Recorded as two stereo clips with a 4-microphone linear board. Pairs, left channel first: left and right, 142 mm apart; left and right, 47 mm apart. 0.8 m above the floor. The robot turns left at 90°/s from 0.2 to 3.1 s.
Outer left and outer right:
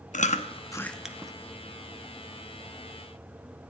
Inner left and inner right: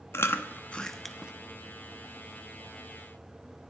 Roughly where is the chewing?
Left.